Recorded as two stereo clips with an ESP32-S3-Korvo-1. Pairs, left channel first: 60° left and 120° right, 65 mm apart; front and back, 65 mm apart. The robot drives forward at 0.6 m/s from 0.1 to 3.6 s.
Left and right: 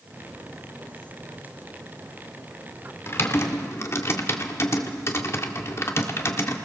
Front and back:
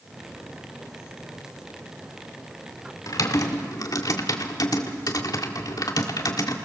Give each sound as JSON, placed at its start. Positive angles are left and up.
{"t": 3.1, "sound": "typing on a keyboard", "azimuth_deg": 15, "distance_m": 1.9}